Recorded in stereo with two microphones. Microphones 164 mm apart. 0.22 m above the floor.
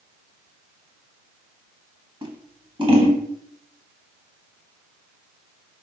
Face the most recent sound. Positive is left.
turn(degrees=-30)  # may be behind; listen again after turning